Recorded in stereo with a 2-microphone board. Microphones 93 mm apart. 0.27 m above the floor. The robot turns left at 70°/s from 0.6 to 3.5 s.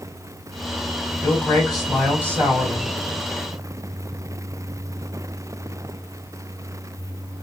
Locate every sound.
1.2 s a man speaking: 40° left, 1.6 m; by 2.9 s 80° right, 1.6 m